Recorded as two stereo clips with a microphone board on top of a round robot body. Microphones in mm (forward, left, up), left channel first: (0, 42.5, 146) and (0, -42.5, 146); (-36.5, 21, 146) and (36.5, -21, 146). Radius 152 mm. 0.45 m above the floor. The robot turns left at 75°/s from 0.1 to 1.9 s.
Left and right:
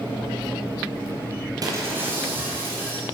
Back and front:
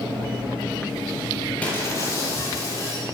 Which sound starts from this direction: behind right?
Breaking glass, at 1.6 s.